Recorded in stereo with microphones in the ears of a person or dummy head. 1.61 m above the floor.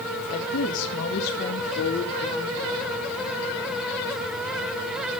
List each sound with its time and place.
0.3 s a woman speaking: 75° left (ahead or behind), 2.5 m; by 2.9 s 25° left (ahead or behind), 3.5 m